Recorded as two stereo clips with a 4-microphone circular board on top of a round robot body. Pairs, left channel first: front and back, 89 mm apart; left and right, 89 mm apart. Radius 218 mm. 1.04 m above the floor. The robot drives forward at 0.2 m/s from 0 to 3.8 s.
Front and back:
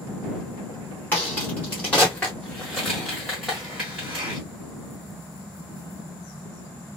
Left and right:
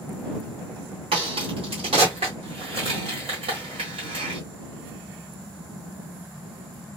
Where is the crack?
70° right, 1.3 m; by 4.4 s 95° right, 1.3 m.